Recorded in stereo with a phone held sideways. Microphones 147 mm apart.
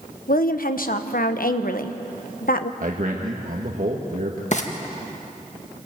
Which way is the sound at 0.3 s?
75° left (ahead or behind).